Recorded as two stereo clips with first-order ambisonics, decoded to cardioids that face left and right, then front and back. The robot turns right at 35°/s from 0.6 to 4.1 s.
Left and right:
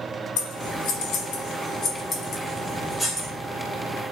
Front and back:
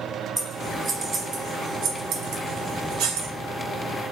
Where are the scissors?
100° left, 1.0 m; by 3.3 s 165° right, 1.0 m.